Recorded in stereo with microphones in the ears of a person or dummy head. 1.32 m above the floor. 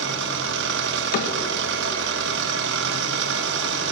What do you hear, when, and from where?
0.0 s an engine running: 60° right (ahead or behind), 1.2 m
1.1 s a cupboard door: 45° left (ahead or behind), 1.6 m